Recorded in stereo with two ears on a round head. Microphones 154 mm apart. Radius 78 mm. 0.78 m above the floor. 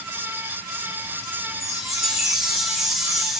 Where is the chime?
Centre (ahead or behind), 1.0 m.